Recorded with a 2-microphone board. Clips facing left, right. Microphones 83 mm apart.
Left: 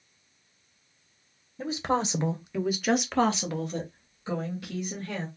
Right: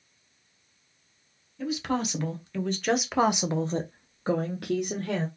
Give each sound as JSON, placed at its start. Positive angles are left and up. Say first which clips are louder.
{"t": 1.6, "sound": "a woman speaking", "louder": "left 1 dB", "side_deg": 35, "distance_m": 1.1}